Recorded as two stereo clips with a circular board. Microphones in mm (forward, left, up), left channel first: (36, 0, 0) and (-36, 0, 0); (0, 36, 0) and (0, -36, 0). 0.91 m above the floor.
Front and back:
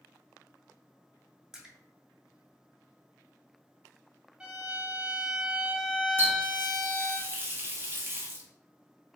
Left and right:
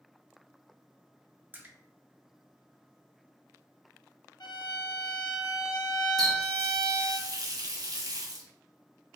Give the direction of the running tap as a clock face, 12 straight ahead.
4 o'clock.